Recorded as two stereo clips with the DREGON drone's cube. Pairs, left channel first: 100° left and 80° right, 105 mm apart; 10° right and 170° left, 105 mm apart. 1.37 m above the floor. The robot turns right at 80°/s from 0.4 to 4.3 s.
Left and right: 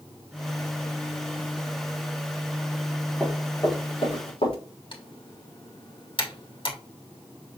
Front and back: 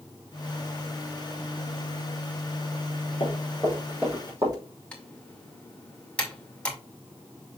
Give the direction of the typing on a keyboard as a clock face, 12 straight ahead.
10 o'clock.